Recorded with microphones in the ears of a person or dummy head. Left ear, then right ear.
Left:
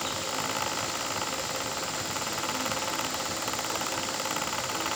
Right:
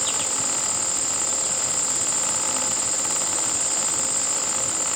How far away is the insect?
About 1.7 m.